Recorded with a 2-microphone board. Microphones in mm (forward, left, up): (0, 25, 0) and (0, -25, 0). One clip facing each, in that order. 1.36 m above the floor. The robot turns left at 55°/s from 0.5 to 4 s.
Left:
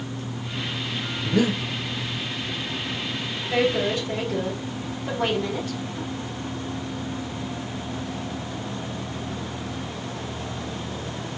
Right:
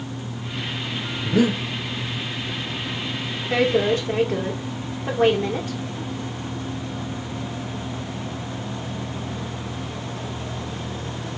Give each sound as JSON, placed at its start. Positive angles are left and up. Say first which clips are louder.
{"t": 1.2, "sound": "breathing", "louder": "right 3 dB", "side_deg": -10, "distance_m": 1.3}
{"t": 3.5, "sound": "a woman speaking", "louder": "right 3 dB", "side_deg": -65, "distance_m": 2.0}